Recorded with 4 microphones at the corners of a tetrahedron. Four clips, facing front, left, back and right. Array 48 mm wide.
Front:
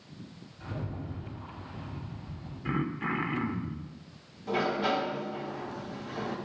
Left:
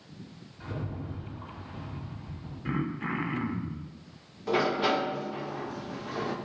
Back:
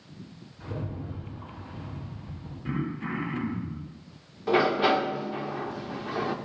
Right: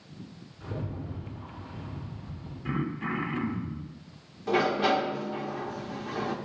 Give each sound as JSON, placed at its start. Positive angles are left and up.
{"t": 0.6, "sound": "a rattle", "azimuth_deg": 105, "distance_m": 3.5}
{"t": 2.6, "sound": "throat clearing", "azimuth_deg": 30, "distance_m": 0.6}
{"t": 4.5, "sound": "a sliding door", "azimuth_deg": -175, "distance_m": 0.6}